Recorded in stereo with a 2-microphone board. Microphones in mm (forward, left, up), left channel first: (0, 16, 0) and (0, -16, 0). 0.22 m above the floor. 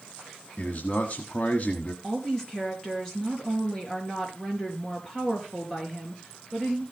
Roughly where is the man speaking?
Left.